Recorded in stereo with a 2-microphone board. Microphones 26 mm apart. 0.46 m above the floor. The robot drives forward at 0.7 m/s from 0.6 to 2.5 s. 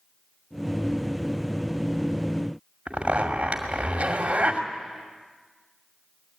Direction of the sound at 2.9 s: 50° right (ahead or behind).